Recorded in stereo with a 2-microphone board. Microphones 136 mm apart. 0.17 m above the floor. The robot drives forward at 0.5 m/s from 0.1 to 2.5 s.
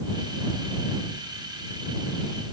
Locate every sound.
Only background noise.